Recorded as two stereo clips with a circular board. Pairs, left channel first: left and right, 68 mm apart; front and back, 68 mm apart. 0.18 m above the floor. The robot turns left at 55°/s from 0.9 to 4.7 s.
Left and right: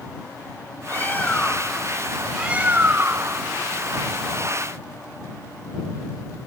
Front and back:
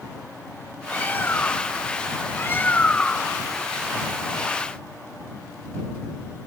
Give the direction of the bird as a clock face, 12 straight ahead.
10 o'clock.